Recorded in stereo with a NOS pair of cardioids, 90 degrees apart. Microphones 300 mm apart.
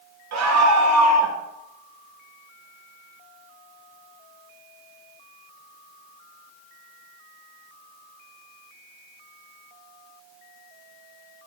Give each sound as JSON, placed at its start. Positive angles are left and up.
{"t": 0.3, "sound": "a scream", "azimuth_deg": -65, "distance_m": 1.7}